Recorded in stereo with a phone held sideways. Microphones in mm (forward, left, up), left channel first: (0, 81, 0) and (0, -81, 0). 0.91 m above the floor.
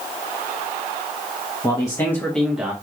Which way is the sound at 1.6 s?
25° left (ahead or behind).